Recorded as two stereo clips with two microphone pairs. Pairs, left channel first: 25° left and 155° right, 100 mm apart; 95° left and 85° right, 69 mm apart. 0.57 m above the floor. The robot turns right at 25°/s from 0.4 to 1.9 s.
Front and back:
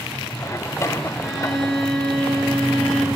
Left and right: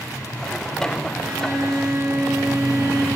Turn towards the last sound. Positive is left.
turn(degrees=-55)